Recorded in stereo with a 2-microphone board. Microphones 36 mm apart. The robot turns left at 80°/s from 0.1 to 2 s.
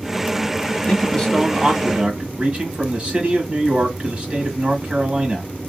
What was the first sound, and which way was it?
A man speaking, 50° left.